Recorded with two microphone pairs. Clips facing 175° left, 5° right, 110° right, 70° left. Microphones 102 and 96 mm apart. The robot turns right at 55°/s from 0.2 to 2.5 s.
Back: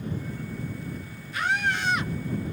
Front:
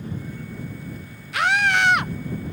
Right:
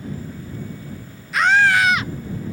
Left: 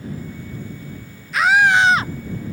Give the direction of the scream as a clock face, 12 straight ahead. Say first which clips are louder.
Front 6 dB, left 1 dB; 1 o'clock.